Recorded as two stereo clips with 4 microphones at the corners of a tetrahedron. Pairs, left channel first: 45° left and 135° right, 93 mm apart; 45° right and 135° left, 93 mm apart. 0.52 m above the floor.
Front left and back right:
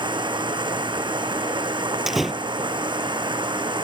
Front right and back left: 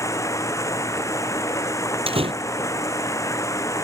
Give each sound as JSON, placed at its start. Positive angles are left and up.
{"t": 0.0, "sound": "running water", "azimuth_deg": -100}
{"t": 2.1, "sound": "a door slam", "azimuth_deg": 135}